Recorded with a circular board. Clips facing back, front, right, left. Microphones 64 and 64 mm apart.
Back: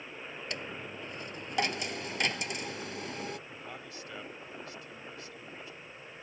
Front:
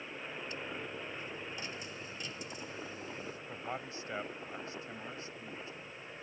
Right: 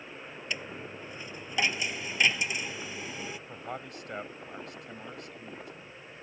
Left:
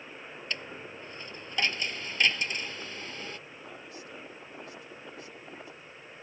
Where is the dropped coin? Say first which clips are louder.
Back 3 dB, right 1 dB; 170° right.